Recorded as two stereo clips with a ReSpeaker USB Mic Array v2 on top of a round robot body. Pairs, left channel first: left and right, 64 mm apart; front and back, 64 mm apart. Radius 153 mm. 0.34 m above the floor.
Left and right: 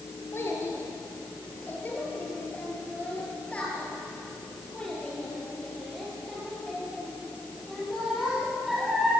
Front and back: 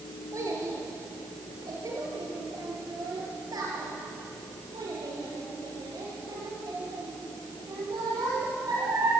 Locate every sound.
0.3 s a child speaking: 140° left, 7 m; by 9.1 s 175° right, 10.5 m